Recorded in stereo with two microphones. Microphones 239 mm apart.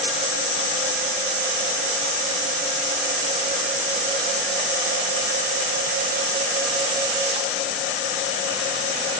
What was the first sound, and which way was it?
Only background noise.